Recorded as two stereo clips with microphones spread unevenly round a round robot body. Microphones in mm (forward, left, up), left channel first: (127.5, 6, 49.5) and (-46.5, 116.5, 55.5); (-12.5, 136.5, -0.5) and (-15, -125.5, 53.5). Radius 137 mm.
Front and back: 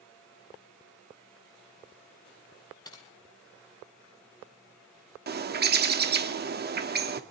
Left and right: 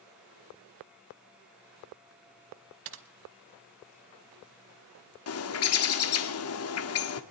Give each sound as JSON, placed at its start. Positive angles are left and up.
{"t": 2.9, "sound": "typing on a keyboard", "azimuth_deg": -110, "distance_m": 1.0}
{"t": 5.3, "sound": "a bird", "azimuth_deg": 110, "distance_m": 1.6}